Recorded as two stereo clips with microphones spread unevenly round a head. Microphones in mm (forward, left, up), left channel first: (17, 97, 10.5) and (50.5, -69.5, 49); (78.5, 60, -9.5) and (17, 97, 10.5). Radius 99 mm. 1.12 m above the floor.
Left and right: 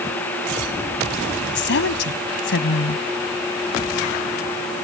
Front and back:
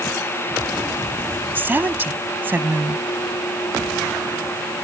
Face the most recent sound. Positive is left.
turn(degrees=90)